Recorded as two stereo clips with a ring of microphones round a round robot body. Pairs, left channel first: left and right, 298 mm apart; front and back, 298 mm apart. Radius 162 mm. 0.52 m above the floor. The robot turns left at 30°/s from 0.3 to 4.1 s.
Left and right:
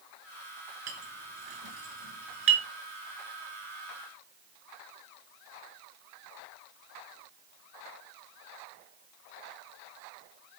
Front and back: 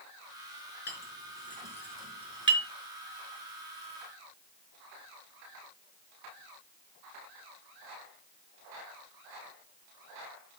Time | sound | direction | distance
0.9 | a clink | 55° right | 5 m